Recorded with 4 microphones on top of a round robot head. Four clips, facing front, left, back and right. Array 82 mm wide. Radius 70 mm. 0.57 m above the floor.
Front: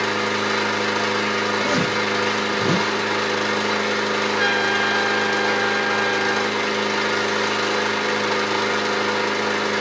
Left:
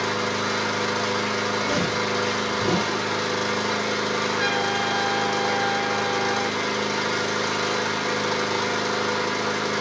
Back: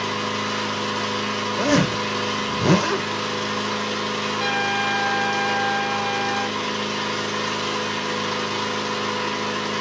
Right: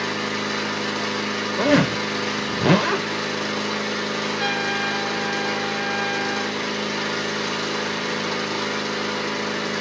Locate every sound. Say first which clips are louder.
0.0 s an engine running: left 1 dB, front 4 dB; 10° left, 1.7 m
1.6 s a zipper: right 5 dB, even; 115° right, 0.6 m
4.4 s a trumpet: even, front 2 dB; 10° left, 2.5 m